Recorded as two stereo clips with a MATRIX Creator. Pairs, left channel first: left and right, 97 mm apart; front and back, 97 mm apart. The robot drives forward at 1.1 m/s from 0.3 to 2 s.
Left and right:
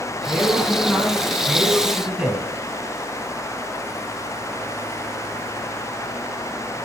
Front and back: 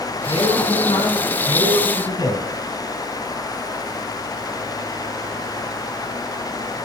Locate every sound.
0.3 s a man speaking: 5° right, 3.5 m; by 2.5 s 10° right, 1.8 m